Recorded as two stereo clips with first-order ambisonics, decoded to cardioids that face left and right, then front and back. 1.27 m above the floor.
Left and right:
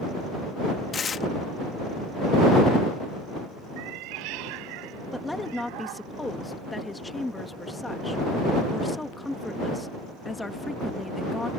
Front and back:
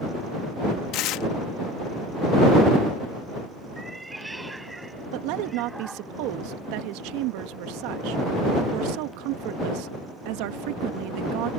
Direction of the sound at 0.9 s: 25° left.